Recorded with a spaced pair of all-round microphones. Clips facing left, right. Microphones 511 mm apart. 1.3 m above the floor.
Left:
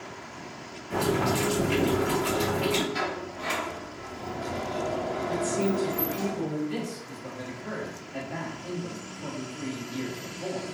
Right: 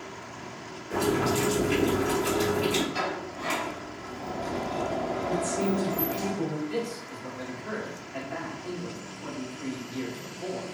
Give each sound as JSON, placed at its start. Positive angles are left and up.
{"t": 0.9, "sound": "boiling", "side_deg": 20, "distance_m": 1.2}
{"t": 2.9, "sound": "a sliding door", "side_deg": 40, "distance_m": 1.2}
{"t": 5.3, "sound": "a woman speaking", "side_deg": 70, "distance_m": 1.4}
{"t": 6.7, "sound": "a man speaking", "side_deg": 55, "distance_m": 1.0}